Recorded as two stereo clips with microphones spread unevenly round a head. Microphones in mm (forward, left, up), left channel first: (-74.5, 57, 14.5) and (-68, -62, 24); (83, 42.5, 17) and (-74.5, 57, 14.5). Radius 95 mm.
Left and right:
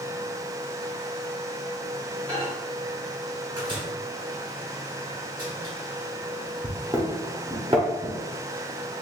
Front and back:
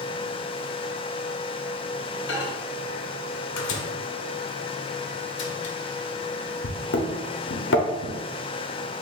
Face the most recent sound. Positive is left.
turn(degrees=-20)